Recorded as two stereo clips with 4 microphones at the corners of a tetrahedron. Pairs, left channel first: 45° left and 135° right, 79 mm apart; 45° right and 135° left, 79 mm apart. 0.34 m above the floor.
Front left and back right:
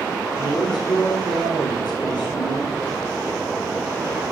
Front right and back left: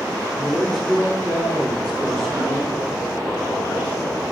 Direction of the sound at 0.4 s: 50° left.